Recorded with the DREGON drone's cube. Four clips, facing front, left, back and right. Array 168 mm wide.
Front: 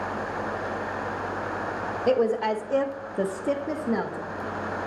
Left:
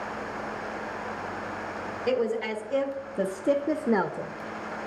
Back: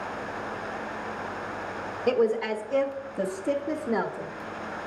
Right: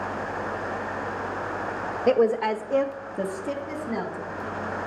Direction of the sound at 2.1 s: 65° right.